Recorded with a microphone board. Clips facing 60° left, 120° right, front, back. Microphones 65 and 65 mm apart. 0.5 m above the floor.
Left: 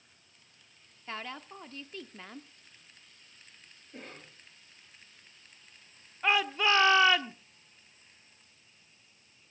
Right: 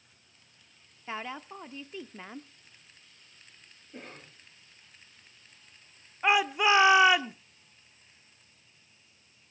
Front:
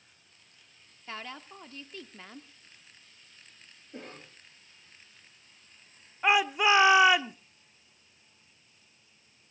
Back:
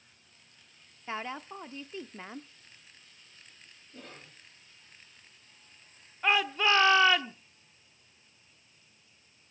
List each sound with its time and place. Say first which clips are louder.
1.1 s a woman speaking: right 3 dB, back 5 dB; 170° right, 0.8 m
3.9 s a cough: right 1 dB, front 4 dB; 35° right, 10 m
6.2 s a shout: right 3 dB, front 3 dB; 60° right, 0.7 m